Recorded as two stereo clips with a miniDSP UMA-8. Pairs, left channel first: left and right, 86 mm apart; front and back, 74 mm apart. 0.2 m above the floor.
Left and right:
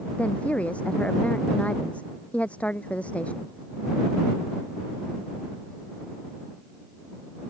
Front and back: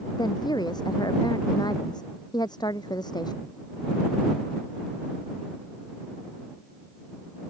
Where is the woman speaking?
15° left.